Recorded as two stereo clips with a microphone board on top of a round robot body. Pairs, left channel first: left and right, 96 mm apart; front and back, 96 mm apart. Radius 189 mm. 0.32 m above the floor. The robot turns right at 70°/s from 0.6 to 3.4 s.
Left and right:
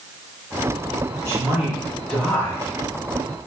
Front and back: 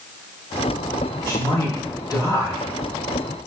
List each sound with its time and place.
1.3 s a man speaking: 50° right, 1.5 m; by 3.5 s 100° left, 1.5 m